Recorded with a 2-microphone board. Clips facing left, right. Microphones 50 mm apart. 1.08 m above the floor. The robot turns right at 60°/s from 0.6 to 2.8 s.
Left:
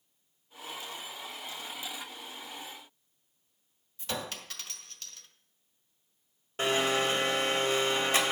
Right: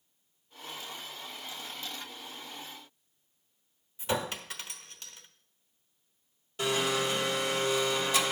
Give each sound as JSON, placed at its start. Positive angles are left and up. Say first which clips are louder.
{"t": 4.0, "sound": "a clink", "louder": "right 5 dB", "side_deg": -20, "distance_m": 1.0}
{"t": 6.6, "sound": "a blender", "louder": "left 2 dB", "side_deg": 40, "distance_m": 1.5}